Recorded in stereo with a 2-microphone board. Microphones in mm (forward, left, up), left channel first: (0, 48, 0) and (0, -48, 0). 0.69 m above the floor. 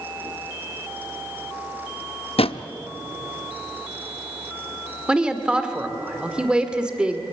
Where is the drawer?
85° left, 0.6 m.